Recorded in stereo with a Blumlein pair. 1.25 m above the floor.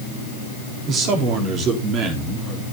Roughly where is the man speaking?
Ahead right.